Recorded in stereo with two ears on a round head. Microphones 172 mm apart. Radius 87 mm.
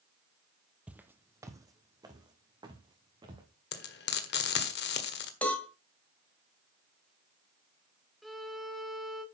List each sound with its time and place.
0.9 s footsteps: 5° right (ahead or behind), 0.8 m; by 3.5 s 25° right (ahead or behind), 3 m
3.7 s frying: 55° left (ahead or behind), 1.5 m
5.4 s a cowbell: 5° left (ahead or behind), 2.0 m
8.2 s a violin: centre (ahead or behind), 2 m